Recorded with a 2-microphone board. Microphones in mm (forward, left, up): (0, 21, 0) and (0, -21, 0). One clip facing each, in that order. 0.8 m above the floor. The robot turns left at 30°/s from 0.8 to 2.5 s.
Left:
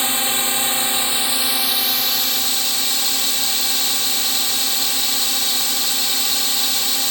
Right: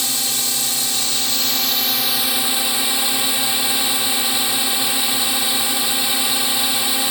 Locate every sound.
0.0 s a drone: 35° left; by 7.1 s 15° right